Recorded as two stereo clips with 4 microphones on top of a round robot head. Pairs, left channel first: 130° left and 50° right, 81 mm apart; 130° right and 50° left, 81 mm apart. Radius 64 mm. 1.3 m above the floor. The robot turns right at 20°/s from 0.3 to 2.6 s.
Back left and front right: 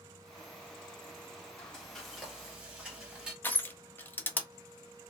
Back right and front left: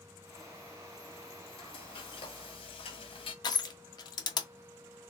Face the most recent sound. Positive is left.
turn(degrees=-165)